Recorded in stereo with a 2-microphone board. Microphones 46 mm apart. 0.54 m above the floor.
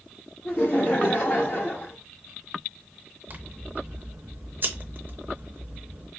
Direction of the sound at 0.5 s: 40° left (ahead or behind).